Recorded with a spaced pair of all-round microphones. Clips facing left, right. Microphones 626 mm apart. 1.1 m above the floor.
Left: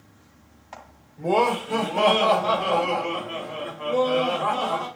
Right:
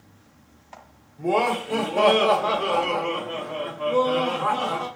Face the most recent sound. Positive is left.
turn(degrees=10)  # may be behind; listen again after turning